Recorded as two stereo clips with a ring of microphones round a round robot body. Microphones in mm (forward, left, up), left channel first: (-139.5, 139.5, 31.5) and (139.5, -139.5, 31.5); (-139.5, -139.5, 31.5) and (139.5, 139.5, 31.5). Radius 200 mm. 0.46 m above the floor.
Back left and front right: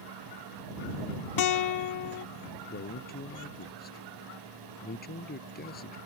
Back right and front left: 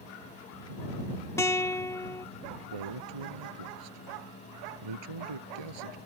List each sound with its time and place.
1.4 s a guitar: 145° left
2.7 s a man speaking: 65° left